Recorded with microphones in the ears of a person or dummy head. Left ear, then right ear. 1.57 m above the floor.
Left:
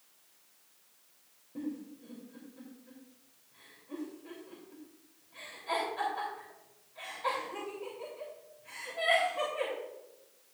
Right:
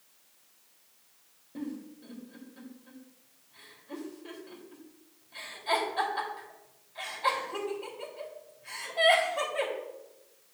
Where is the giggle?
40° right (ahead or behind), 3.5 m.